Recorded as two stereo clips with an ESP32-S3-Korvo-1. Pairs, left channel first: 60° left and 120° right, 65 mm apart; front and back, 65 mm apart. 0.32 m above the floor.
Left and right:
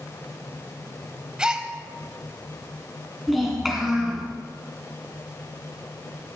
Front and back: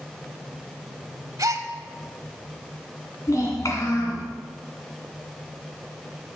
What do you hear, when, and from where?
1.4 s a gasp: 165° left, 0.7 m
3.3 s a child speaking: 35° right, 3 m